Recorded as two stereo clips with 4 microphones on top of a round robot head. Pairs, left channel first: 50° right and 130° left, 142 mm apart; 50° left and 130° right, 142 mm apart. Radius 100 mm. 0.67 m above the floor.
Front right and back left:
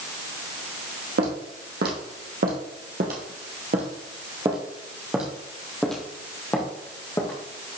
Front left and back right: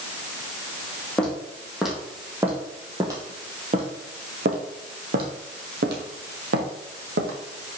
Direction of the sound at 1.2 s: 135° left.